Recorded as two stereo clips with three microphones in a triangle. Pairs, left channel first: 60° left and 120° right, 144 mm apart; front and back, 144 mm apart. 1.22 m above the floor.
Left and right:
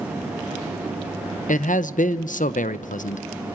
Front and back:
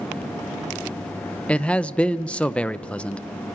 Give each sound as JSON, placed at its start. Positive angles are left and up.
{"t": 1.5, "sound": "a man speaking", "azimuth_deg": 80, "distance_m": 0.7}